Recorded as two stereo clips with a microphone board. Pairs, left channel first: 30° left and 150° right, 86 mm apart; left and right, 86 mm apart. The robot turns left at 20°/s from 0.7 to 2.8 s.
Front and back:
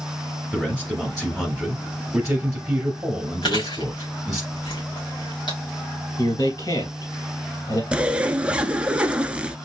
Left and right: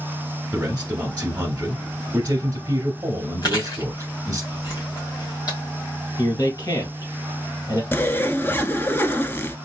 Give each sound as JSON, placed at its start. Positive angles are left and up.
{"t": 0.5, "sound": "a man speaking", "azimuth_deg": -40, "distance_m": 1.4}
{"t": 3.4, "sound": "chewing", "azimuth_deg": 50, "distance_m": 2.5}
{"t": 6.2, "sound": "a man speaking", "azimuth_deg": 50, "distance_m": 2.5}
{"t": 7.9, "sound": "a zipper", "azimuth_deg": 140, "distance_m": 0.5}